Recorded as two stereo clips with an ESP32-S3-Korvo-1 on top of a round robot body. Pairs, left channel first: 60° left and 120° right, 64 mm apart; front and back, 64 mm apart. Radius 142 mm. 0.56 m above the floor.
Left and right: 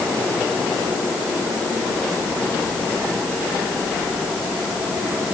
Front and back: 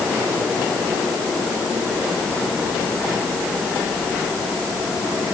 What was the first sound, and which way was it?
Only background noise.